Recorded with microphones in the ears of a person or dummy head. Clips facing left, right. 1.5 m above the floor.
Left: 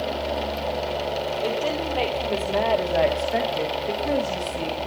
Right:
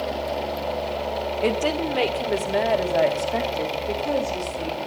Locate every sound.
1.4 s a woman speaking: 40° right (ahead or behind), 1.8 m; by 4.8 s 15° left (ahead or behind), 2.5 m